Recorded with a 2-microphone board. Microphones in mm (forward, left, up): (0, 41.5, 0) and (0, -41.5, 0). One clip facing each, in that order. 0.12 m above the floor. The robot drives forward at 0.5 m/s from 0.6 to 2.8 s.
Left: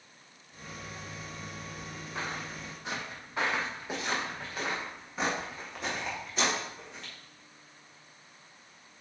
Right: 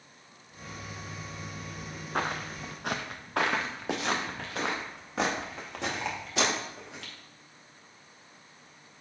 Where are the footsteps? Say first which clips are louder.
Right 6 dB; 65° right (ahead or behind), 0.7 m; by 7.1 s 85° right, 3.5 m.